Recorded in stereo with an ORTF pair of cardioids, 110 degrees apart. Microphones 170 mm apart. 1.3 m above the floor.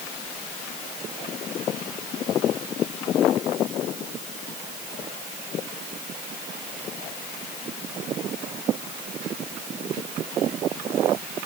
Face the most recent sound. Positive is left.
No sound to turn to.